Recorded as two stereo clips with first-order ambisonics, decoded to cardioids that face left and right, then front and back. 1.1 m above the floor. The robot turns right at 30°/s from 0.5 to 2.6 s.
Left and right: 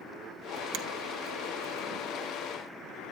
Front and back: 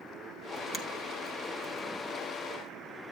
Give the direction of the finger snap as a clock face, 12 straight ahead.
2 o'clock.